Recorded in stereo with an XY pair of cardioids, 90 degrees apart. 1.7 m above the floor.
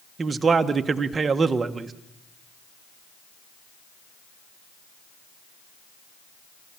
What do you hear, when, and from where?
0.2 s a man speaking: 40° right, 1.4 m